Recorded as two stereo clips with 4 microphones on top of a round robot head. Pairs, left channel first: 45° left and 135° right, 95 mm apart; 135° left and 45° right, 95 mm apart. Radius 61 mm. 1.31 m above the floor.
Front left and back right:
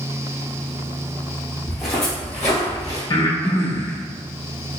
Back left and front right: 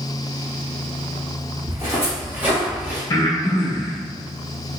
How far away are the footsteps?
About 1.3 m.